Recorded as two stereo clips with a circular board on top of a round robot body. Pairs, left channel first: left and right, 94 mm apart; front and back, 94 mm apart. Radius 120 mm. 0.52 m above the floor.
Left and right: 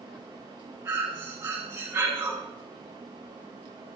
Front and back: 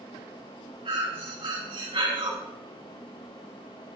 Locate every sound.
0.8 s breathing: 150° right, 5 m